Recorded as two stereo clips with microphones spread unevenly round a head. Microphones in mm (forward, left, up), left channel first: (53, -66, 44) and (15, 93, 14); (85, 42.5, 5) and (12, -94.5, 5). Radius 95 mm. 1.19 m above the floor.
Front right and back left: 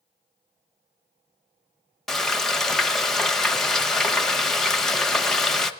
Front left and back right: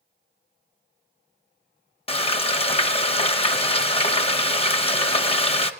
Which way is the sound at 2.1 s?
10° left.